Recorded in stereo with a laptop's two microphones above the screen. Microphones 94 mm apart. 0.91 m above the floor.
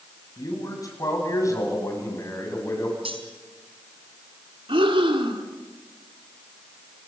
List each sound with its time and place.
0.4 s a man speaking: 40° left (ahead or behind), 8.5 m; by 3.0 s 30° left (ahead or behind), 8.5 m
3.0 s cutlery clinking: 85° right, 4 m
4.7 s breathing: 75° right (ahead or behind), 2.5 m